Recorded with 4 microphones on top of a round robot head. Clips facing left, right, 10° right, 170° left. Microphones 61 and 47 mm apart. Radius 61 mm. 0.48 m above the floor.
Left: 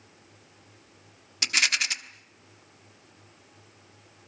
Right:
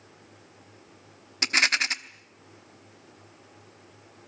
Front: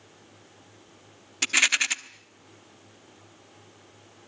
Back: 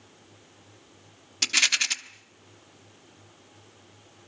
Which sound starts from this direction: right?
A rattle, at 1.4 s.